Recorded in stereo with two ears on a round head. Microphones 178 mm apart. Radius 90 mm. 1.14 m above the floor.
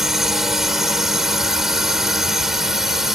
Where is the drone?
Centre (ahead or behind).